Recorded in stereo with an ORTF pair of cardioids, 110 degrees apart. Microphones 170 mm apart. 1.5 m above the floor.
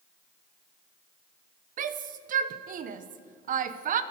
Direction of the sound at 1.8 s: 50° right.